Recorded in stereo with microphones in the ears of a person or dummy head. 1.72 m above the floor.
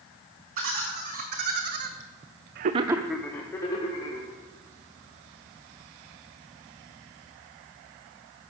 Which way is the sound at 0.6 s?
45° right (ahead or behind).